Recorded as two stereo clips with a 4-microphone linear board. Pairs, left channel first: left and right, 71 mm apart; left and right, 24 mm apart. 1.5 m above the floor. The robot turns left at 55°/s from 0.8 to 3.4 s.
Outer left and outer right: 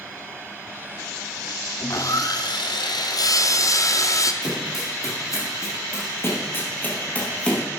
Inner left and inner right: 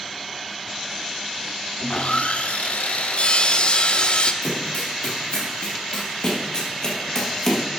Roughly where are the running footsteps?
Left.